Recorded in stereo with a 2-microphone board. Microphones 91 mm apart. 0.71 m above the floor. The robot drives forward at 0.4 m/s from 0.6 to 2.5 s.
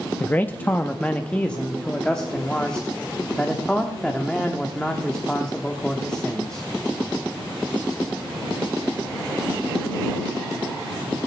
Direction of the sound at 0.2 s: 15° left (ahead or behind).